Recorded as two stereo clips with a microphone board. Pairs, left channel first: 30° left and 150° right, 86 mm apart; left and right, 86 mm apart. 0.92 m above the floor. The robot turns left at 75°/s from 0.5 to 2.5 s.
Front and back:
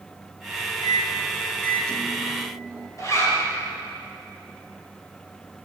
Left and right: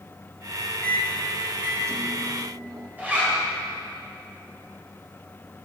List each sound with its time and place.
0.8 s a microwave: 35° left, 0.9 m; by 2.9 s 90° right, 0.9 m
3.0 s a zipper: 20° right, 3 m